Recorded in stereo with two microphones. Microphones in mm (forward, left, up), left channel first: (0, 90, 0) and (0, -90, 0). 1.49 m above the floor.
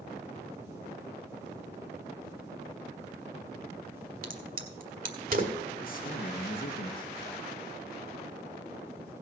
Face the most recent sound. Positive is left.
turn(degrees=55)  # may be behind; listen again after turning